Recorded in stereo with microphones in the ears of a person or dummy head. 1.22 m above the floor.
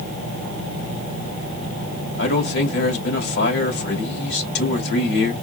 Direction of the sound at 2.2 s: 65° left (ahead or behind).